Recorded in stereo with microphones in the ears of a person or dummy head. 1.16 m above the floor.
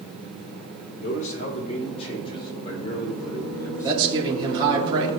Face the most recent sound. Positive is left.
turn(degrees=-20)  # may be behind; listen again after turning